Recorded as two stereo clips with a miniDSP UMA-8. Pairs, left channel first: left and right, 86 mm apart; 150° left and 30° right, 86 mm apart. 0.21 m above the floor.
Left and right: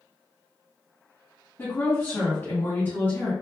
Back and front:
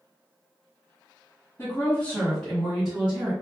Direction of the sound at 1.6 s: 125° left.